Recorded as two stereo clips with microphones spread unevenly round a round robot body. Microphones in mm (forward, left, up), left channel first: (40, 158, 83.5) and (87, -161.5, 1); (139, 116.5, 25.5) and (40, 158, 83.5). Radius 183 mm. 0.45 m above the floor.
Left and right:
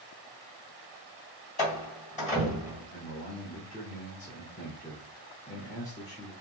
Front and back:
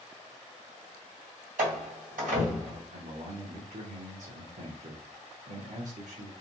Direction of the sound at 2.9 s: 175° left.